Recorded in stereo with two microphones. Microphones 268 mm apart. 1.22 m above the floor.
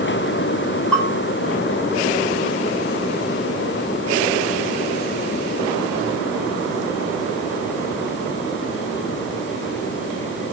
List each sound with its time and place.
0.9 s a bell: 5° left (ahead or behind), 9.5 m